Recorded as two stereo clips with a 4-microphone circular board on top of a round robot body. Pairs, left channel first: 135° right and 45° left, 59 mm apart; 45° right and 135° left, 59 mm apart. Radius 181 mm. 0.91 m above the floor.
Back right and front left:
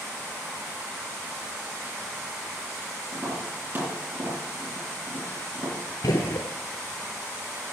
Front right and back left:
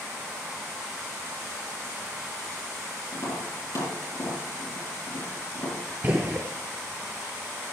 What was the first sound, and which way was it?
Tapping, 5° right.